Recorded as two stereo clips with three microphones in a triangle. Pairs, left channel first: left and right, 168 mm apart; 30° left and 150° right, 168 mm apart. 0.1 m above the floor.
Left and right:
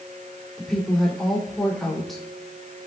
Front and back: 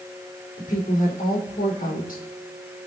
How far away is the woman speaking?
About 4.5 m.